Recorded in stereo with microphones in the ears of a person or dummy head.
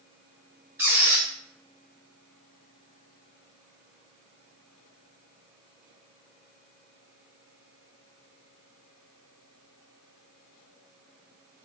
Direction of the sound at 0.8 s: 15° right (ahead or behind).